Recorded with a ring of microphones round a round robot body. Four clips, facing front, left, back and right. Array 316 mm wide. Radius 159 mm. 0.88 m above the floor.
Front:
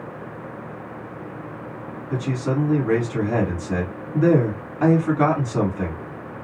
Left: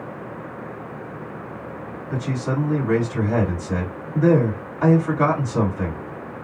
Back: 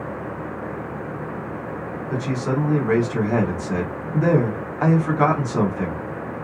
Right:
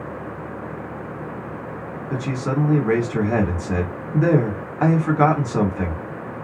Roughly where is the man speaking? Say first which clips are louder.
Right 1 dB, even; right.